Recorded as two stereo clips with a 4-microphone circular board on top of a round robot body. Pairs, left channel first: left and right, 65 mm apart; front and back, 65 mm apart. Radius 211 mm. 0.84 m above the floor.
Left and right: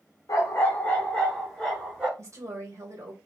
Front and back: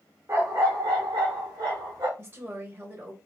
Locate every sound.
0.3 s a dog barking: 130° left, 0.6 m; by 2.1 s 165° right, 1.4 m
2.2 s a woman speaking: 125° right, 1.6 m